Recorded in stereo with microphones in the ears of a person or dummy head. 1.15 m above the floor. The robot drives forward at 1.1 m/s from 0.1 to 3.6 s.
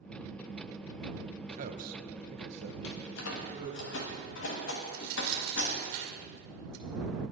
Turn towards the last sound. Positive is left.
turn(degrees=-80)